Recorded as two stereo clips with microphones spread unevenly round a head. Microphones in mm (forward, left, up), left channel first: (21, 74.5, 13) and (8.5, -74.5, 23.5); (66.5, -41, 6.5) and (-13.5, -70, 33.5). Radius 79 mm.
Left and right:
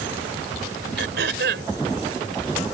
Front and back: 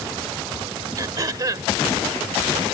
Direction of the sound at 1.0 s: 120° right.